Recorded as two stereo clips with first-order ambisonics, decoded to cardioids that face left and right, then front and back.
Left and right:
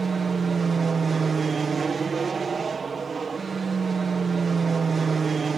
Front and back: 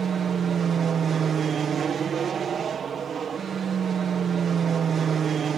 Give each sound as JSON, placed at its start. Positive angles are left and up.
{"t": 0.0, "sound": "an aircraft", "azimuth_deg": -145}